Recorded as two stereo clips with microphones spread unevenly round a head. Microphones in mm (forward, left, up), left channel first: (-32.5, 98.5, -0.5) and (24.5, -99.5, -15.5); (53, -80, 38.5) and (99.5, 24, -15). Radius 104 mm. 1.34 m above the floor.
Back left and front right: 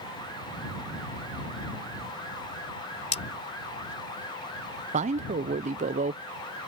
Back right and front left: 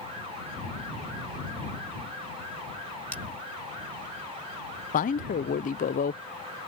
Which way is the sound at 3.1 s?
165° left.